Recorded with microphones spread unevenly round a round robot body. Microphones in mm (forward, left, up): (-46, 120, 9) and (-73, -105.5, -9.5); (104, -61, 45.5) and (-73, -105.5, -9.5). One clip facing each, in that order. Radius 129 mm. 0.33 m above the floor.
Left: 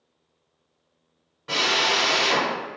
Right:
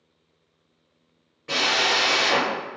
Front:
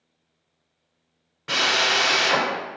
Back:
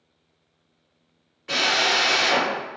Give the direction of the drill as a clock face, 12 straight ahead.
12 o'clock.